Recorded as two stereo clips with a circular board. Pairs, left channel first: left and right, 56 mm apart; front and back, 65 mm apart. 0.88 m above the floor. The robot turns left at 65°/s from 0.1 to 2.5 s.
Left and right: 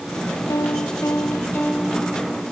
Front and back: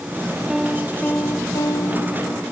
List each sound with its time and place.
0.5 s a piano: 100° left; by 2.4 s 25° right